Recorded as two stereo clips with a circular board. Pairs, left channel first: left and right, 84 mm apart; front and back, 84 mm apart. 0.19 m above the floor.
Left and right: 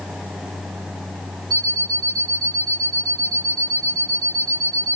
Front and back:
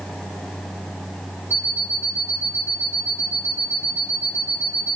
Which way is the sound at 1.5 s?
60° right.